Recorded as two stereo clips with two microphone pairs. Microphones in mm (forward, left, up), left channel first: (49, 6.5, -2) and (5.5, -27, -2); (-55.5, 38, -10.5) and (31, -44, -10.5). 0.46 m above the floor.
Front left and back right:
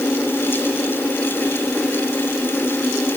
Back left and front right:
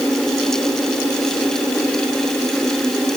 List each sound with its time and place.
Only background noise.